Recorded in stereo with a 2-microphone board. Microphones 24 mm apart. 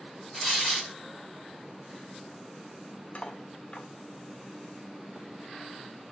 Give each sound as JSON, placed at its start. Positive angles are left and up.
{"t": 0.3, "sound": "tearing paper", "side_deg": 0, "distance_m": 1.7}
{"t": 3.1, "sound": "cutlery clinking", "side_deg": 60, "distance_m": 0.5}